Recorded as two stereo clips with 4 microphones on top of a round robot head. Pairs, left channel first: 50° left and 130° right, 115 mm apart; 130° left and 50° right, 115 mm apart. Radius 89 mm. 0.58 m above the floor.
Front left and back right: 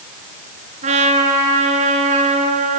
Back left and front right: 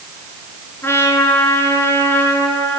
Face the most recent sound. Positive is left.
turn(degrees=-155)